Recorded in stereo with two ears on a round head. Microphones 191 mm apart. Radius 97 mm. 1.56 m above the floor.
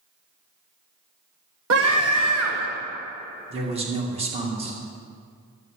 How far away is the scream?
About 1.6 m.